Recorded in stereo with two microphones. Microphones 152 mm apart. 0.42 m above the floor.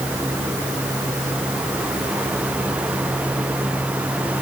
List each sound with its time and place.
Only background noise.